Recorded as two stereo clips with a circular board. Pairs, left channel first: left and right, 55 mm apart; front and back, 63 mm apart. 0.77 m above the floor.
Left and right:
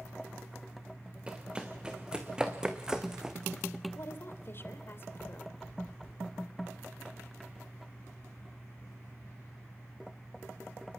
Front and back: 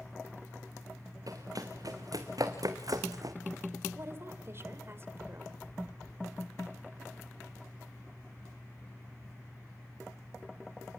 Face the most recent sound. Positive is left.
turn(degrees=130)